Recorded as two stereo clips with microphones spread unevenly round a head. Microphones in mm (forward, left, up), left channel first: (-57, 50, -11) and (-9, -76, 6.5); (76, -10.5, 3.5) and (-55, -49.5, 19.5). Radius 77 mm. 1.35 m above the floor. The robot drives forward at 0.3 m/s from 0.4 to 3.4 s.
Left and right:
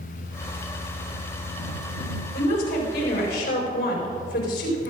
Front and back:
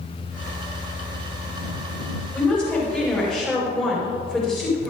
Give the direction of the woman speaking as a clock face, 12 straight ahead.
9 o'clock.